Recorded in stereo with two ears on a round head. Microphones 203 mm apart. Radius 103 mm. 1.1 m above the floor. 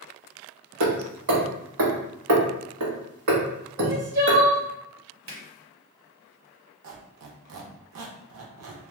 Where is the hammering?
65° right (ahead or behind), 1.1 m.